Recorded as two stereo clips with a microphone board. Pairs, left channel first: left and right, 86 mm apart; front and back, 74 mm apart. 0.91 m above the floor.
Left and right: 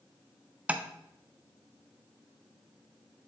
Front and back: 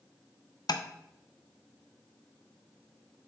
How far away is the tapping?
About 0.5 m.